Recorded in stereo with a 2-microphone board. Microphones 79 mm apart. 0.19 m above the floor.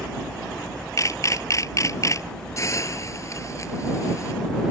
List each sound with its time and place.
1.0 s a camera shutter: 40° left (ahead or behind)
2.6 s a hiss: 40° left (ahead or behind)